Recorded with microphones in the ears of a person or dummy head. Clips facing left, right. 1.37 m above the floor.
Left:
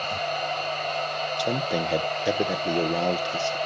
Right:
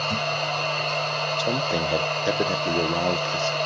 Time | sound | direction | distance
0.0 | a machine running | 70° right (ahead or behind) | 4.5 m
1.4 | a man speaking | 5° right (ahead or behind) | 1.1 m